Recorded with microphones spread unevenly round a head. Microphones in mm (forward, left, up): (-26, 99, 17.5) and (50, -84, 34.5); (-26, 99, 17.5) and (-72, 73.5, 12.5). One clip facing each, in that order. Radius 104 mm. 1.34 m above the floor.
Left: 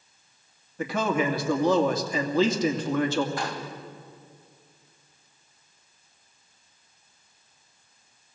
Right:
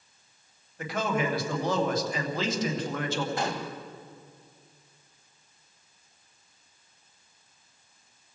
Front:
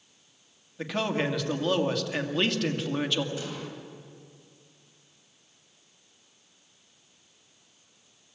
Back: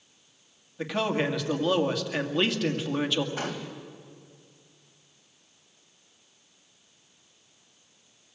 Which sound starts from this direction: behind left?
A man speaking, at 0.8 s.